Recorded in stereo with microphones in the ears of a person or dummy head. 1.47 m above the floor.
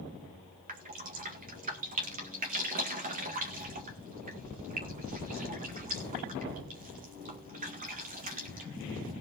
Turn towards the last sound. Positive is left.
turn(degrees=-40)  # may be behind; listen again after turning